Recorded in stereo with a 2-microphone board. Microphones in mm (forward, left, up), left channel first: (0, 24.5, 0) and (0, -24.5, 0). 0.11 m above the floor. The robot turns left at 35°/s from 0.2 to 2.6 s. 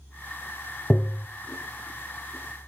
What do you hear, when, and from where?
0.9 s tapping: 20° left (ahead or behind), 0.8 m; by 1.3 s 30° left (ahead or behind), 0.8 m